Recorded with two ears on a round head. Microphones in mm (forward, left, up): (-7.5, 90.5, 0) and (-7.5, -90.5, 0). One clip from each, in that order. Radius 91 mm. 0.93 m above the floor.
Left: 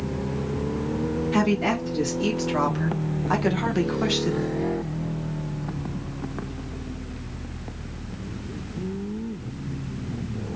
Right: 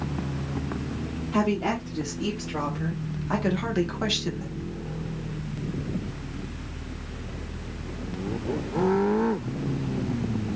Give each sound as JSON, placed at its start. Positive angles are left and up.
{"t": 1.3, "sound": "a woman speaking", "side_deg": 50, "distance_m": 1.6}